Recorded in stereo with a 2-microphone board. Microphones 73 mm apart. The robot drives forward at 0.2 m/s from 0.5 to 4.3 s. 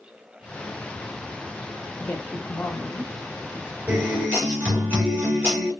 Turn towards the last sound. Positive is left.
turn(degrees=-20)  # may be behind; listen again after turning